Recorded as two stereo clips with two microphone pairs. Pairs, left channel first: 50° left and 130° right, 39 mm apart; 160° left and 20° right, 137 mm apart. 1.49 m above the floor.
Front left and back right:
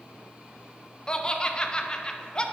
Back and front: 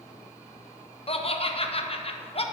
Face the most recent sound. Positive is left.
turn(degrees=115)